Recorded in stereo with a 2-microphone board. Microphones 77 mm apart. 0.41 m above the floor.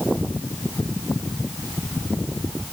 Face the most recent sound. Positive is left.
No sound to turn to.